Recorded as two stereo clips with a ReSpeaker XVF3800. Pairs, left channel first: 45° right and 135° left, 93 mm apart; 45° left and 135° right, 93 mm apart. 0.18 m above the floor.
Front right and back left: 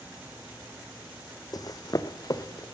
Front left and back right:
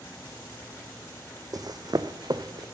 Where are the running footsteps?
90° right, 0.5 m; by 2.6 s 95° right, 1.1 m.